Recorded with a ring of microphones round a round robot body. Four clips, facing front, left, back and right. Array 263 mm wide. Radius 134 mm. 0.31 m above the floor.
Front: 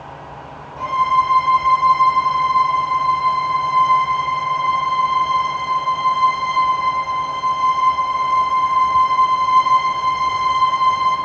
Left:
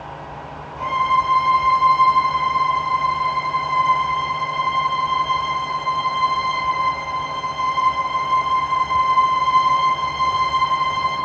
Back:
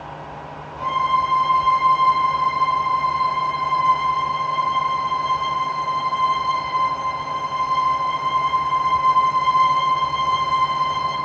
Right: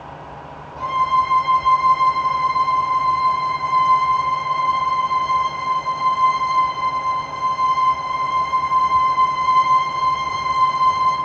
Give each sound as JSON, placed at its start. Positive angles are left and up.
{"t": 0.8, "sound": "a violin", "azimuth_deg": -35, "distance_m": 9.5}